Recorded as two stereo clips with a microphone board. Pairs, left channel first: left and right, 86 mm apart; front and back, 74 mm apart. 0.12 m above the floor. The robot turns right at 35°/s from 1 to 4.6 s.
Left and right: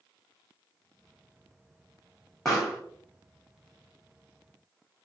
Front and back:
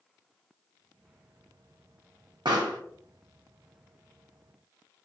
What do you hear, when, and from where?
2.5 s a pop: 175° left, 1.2 m; by 2.8 s 170° right, 1.2 m